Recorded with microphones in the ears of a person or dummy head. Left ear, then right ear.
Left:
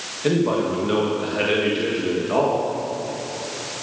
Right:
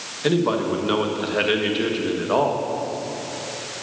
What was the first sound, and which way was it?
A man speaking, 35° right (ahead or behind).